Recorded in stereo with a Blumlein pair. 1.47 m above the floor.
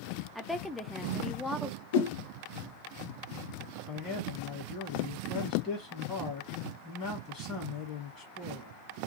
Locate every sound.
0.3 s a woman speaking: straight ahead, 0.6 m
1.9 s a whoosh: 55° left, 0.6 m
3.9 s a man speaking: 35° left, 1.5 m